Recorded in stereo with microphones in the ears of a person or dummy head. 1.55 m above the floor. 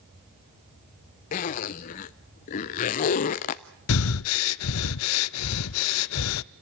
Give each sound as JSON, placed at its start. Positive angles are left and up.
{"t": 1.3, "sound": "a zipper", "side_deg": 45, "distance_m": 0.7}
{"t": 3.9, "sound": "breathing", "side_deg": 80, "distance_m": 0.6}